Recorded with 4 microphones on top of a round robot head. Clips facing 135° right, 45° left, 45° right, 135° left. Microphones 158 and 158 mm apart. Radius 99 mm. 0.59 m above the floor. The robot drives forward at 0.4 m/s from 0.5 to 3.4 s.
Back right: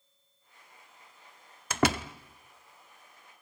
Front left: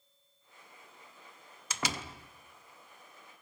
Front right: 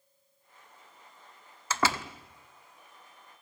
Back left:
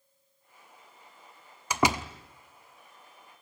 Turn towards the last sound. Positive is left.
turn(degrees=-165)